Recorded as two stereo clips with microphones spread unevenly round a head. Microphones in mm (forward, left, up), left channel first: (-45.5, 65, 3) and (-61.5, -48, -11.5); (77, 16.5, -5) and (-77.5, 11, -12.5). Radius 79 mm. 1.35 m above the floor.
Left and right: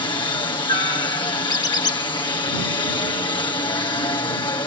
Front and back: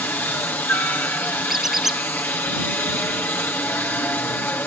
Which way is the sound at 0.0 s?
70° left.